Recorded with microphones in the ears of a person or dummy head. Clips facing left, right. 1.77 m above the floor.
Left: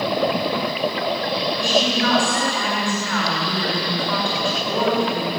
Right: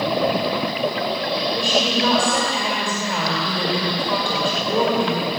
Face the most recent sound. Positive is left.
turn(degrees=-20)  # may be behind; listen again after turning